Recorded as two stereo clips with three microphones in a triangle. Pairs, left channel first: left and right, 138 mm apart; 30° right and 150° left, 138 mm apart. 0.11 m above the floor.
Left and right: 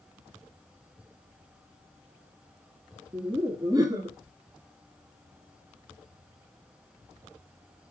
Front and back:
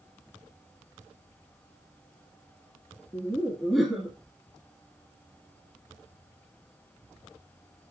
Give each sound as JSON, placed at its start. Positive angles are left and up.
{"t": 3.1, "sound": "laughter", "azimuth_deg": -120, "distance_m": 1.7}